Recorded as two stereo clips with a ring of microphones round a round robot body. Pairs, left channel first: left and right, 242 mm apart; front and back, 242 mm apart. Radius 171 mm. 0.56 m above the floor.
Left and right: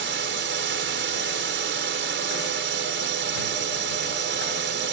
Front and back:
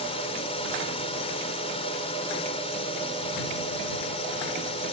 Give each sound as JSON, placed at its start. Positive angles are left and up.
{"t": 0.0, "sound": "a drone", "azimuth_deg": -65}